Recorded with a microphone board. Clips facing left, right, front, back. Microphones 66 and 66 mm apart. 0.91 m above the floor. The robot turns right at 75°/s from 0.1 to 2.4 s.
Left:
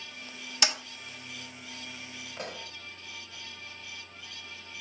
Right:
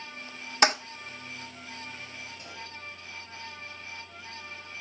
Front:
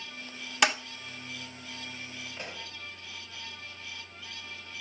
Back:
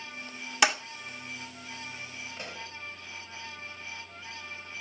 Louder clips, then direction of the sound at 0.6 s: Right 9 dB, back 1 dB; 95° right.